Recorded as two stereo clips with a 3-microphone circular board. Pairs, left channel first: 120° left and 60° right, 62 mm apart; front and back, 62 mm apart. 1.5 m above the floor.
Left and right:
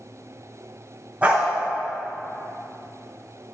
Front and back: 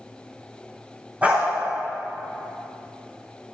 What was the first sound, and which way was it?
A dog barking, 120° right.